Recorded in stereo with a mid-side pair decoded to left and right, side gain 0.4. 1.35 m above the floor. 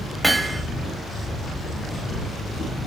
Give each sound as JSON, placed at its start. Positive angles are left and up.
{"t": 0.2, "sound": "hammering", "azimuth_deg": -15, "distance_m": 2.5}